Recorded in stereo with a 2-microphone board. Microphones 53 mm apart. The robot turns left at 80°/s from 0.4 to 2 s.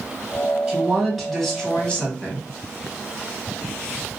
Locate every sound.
0.7 s a woman speaking: 15° right (ahead or behind), 1.4 m; by 2.5 s 20° left (ahead or behind), 1.4 m